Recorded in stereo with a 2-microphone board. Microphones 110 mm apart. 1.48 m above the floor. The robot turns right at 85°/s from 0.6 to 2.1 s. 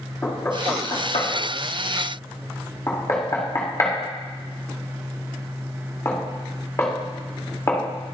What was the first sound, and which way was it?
Knocking, 20° left (ahead or behind).